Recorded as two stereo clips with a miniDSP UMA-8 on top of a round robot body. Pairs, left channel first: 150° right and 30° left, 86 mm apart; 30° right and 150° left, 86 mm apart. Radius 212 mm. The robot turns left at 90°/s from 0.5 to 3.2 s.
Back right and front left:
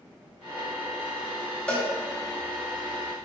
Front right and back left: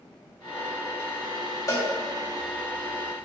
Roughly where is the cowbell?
Right.